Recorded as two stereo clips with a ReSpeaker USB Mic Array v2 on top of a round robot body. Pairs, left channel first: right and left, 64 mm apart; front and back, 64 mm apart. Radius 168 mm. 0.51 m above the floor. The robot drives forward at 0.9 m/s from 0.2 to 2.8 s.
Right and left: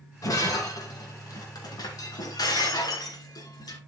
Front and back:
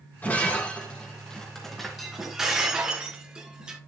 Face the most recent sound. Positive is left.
turn(degrees=-105)